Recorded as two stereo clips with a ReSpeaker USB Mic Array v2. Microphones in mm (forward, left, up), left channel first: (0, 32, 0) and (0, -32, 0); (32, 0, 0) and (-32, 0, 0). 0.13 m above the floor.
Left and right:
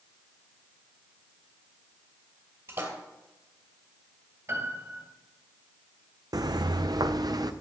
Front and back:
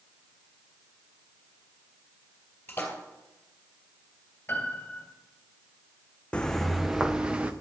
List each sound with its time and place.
2.7 s a splash: 55° right, 2.5 m
4.5 s a piano: 55° right, 2.5 m
6.3 s footsteps: 70° right, 0.6 m; by 7.5 s 110° right, 1.1 m